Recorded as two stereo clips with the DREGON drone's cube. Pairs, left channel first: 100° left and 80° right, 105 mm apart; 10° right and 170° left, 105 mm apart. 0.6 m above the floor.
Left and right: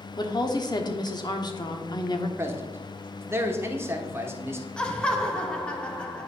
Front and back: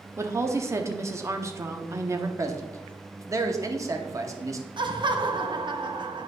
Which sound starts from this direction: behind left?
A woman speaking, at 0.2 s.